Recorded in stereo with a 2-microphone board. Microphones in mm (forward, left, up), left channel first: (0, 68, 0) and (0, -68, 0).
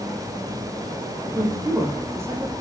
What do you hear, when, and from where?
1.4 s a man speaking: 15° right (ahead or behind), 6 m; by 2.5 s 20° right (ahead or behind), 7 m